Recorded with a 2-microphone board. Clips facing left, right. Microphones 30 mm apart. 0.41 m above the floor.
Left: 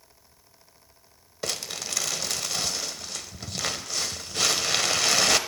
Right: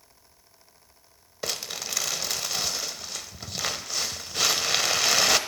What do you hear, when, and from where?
1.4 s crumpling: 10° right (ahead or behind), 1.0 m